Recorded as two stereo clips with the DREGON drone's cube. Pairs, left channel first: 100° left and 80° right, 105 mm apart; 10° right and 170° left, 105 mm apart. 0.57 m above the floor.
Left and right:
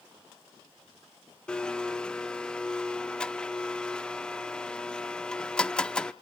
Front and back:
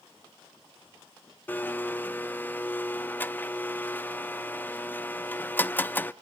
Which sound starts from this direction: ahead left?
A blender, at 1.5 s.